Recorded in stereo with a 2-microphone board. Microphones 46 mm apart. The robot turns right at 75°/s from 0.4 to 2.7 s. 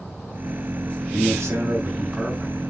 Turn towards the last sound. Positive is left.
turn(degrees=15)